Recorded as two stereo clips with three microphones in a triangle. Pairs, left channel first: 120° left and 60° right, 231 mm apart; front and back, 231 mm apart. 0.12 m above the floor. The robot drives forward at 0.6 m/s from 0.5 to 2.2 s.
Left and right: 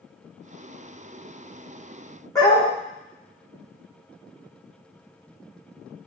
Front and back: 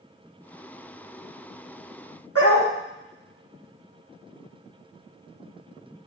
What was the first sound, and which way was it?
A dog barking, 165° right.